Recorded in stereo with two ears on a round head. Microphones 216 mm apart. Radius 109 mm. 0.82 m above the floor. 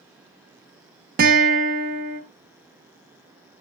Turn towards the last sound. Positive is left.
turn(degrees=-35)  # may be behind; listen again after turning